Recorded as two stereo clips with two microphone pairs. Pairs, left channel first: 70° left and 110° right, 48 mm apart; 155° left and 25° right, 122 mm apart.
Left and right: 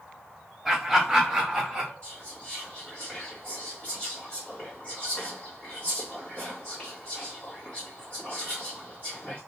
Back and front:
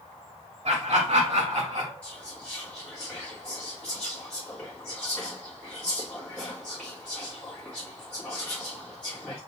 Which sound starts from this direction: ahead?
Laughter, at 0.7 s.